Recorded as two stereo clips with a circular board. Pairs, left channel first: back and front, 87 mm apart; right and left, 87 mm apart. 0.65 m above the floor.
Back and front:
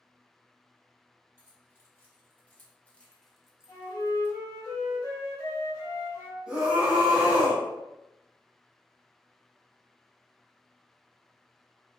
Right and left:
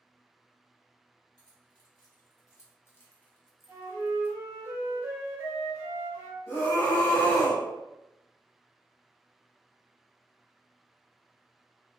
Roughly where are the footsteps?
I don't hear footsteps.